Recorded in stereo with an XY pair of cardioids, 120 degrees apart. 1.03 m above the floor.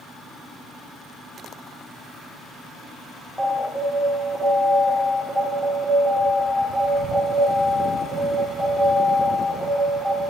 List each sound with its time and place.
3.4 s an alarm: straight ahead, 2 m